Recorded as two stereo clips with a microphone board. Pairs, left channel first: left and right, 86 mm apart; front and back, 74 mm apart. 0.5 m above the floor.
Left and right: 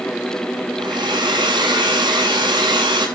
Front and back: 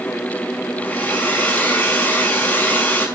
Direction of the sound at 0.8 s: 70° right.